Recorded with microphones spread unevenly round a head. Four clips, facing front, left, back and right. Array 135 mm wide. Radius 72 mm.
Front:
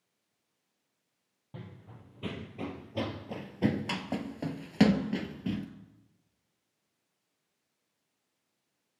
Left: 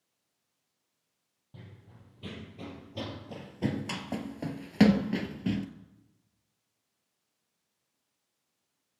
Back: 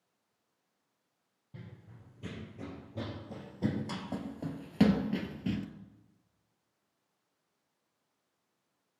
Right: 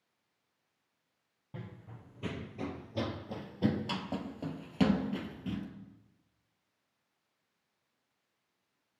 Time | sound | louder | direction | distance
1.5 | running footsteps | right 5 dB, front 4 dB | 30° right | 2 m